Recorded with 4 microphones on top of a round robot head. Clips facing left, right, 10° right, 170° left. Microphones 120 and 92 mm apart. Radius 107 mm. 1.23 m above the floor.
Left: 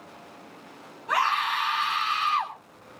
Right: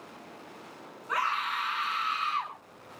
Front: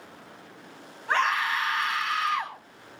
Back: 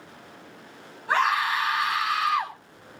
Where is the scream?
85° left, 9.5 m.